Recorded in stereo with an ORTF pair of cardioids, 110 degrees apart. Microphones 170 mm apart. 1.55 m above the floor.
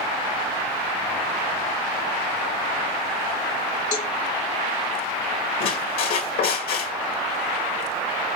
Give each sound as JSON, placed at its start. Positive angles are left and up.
{"t": 3.9, "sound": "a cowbell", "azimuth_deg": 50, "distance_m": 1.7}
{"t": 5.6, "sound": "a squeak", "azimuth_deg": 65, "distance_m": 2.0}